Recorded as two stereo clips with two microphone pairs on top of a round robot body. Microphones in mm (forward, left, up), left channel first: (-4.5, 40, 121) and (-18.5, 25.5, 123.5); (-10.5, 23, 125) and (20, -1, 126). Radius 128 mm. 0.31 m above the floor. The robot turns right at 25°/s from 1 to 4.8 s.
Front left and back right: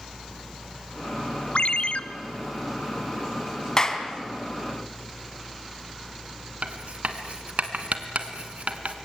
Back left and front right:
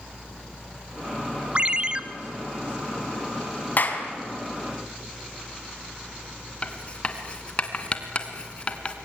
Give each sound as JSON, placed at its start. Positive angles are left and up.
{"t": 1.6, "sound": "a ringtone", "azimuth_deg": 20, "distance_m": 1.2}
{"t": 3.8, "sound": "a clap", "azimuth_deg": 105, "distance_m": 3.0}
{"t": 6.6, "sound": "writing", "azimuth_deg": -155, "distance_m": 1.7}